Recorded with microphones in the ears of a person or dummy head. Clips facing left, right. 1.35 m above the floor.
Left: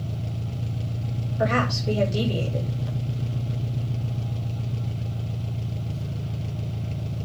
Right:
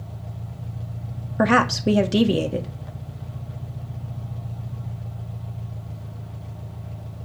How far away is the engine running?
About 1.1 m.